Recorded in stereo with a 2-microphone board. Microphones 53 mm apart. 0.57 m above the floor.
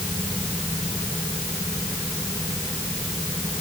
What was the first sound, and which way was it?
Only background noise.